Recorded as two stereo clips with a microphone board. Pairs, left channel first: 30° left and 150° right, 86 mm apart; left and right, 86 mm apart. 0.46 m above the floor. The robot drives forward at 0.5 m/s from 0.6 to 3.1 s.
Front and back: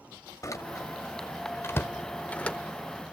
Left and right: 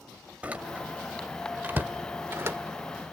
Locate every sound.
0.4 s a door slam: 15° right, 1.7 m; by 2.6 s 40° right, 0.9 m